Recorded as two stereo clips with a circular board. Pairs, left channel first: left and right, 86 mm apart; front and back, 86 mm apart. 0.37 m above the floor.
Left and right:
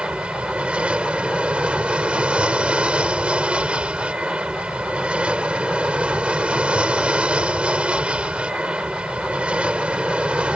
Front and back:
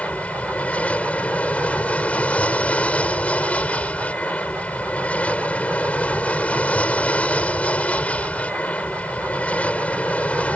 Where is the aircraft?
40° right.